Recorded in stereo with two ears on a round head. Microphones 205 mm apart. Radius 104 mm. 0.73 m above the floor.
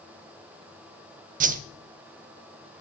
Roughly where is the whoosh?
Right.